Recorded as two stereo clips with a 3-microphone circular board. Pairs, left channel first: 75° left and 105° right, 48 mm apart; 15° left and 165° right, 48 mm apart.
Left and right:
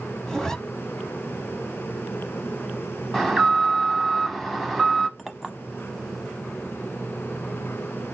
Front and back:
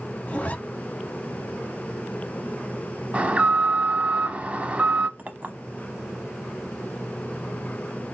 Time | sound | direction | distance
0.3 | a zipper | 5° left | 0.7 m
3.1 | an alarm | 165° left | 0.9 m
5.2 | a clink | 170° left | 0.7 m